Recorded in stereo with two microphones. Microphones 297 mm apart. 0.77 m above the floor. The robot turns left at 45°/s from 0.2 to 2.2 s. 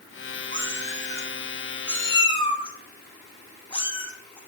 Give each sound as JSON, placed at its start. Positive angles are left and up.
{"t": 0.5, "sound": "a cat meowing", "side_deg": -45, "distance_m": 1.1}